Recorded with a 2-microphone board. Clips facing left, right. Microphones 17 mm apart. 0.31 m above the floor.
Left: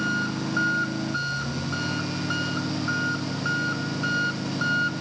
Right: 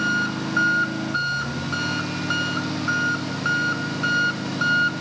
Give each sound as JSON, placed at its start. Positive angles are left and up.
{"t": 0.0, "sound": "an engine running", "side_deg": -25}